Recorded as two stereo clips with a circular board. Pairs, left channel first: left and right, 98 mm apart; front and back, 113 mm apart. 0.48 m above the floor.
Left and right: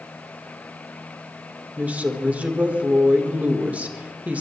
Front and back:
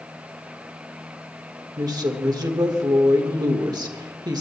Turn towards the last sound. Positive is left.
turn(degrees=-155)